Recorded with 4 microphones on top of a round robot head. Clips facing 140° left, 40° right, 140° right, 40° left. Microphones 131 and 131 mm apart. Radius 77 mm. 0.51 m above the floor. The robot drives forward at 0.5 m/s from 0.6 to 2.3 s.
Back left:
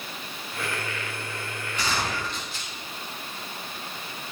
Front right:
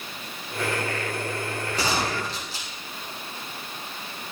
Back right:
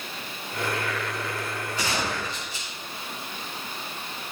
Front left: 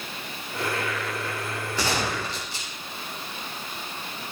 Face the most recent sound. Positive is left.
turn(degrees=15)